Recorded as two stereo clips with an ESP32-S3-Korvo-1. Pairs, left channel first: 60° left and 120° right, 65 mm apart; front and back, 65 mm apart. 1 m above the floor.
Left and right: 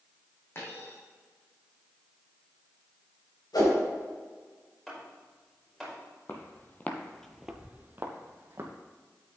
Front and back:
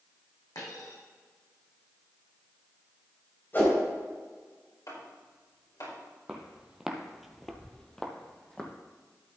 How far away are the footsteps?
About 1.8 m.